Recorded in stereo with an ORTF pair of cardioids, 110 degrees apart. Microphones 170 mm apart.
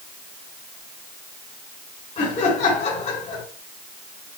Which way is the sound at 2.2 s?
40° left.